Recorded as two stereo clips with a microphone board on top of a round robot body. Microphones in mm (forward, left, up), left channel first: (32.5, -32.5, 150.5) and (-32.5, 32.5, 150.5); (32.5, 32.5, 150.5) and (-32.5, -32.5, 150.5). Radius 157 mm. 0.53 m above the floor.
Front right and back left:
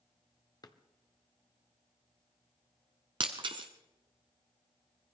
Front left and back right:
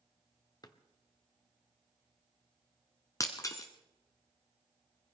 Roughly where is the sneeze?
I don't hear a sneeze.